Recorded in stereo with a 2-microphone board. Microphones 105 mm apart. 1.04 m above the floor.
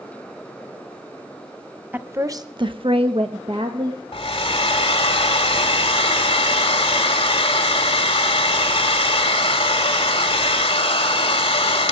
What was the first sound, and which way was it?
A woman speaking, 20° right (ahead or behind).